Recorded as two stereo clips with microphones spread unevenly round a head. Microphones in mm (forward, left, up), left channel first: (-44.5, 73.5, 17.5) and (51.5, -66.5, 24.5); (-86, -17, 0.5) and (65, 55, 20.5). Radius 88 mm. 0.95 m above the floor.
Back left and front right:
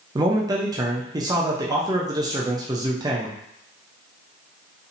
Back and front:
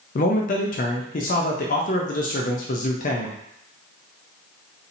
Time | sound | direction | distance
0.1 | a man speaking | 125° right | 0.5 m